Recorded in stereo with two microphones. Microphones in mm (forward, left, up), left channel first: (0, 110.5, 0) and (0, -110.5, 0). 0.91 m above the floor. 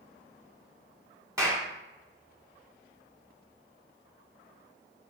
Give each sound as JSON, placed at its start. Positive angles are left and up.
{"t": 1.4, "sound": "a clap", "side_deg": -15, "distance_m": 1.3}